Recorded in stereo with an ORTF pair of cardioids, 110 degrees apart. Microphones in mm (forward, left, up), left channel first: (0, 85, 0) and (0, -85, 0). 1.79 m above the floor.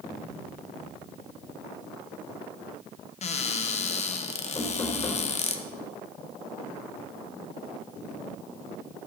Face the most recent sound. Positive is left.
turn(degrees=30)